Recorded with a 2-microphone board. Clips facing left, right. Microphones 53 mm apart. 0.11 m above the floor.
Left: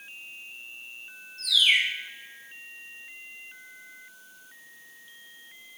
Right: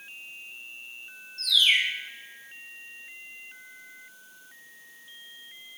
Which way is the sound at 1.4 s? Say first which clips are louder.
Even; 5° left (ahead or behind).